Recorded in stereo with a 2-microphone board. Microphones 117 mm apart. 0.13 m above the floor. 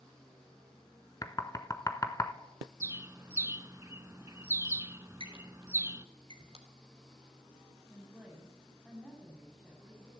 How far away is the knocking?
About 0.9 m.